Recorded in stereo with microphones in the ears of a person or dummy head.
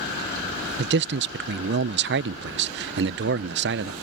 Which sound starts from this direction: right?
A man speaking, at 0.8 s.